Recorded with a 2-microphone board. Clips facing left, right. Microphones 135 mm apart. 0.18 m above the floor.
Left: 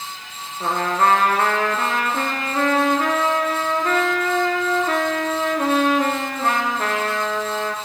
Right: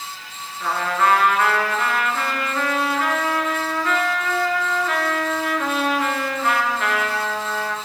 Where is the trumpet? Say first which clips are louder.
Left 1 dB; 40° left (ahead or behind), 1.4 m.